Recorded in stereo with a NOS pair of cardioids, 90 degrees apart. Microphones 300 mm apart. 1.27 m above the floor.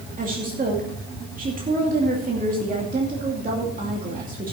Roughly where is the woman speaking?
Ahead right.